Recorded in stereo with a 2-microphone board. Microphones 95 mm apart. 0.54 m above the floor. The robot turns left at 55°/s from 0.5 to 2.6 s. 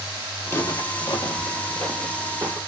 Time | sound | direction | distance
0.5 | footsteps | 25° left (ahead or behind) | 0.9 m